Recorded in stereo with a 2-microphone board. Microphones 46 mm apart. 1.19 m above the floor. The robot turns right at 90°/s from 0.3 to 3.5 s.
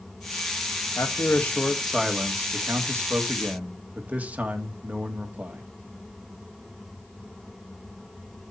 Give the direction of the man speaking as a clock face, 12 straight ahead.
9 o'clock.